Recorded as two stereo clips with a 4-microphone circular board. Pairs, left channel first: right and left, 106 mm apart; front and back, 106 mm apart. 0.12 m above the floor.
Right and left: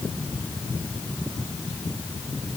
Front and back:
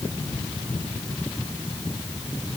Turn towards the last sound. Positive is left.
No sound to turn to.